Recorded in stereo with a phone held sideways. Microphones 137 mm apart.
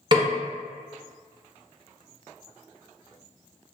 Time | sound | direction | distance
0.1 | a snare drum | 35° right (ahead or behind) | 0.7 m